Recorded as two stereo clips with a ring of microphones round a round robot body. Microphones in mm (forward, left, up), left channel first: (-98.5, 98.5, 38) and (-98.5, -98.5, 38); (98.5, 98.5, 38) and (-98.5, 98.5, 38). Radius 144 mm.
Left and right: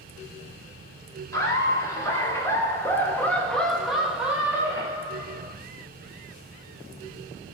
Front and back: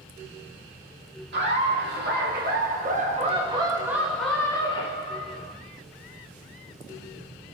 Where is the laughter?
165° left, 1.8 m; by 5.5 s 25° right, 1.2 m.